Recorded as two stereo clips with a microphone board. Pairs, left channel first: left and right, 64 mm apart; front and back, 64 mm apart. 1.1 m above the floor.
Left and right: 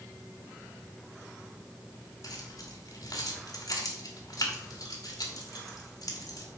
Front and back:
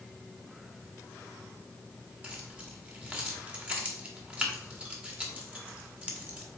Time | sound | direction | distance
2.2 | keys jangling | 110° left | 2 m